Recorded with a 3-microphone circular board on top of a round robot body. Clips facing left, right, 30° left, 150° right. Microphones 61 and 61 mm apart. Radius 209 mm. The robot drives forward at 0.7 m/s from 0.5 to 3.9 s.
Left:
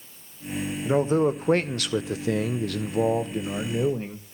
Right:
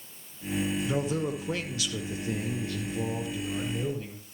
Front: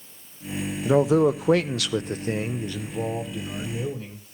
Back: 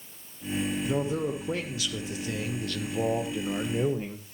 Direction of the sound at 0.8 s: 30° left.